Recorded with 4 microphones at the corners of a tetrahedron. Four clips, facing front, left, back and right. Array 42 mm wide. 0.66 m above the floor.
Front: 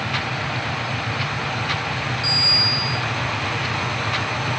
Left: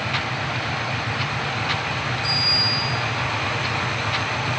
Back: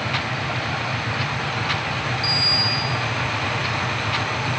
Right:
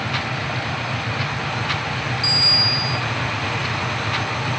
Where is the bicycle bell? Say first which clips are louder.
Right 4 dB, front 3 dB; 115° right, 5.5 m.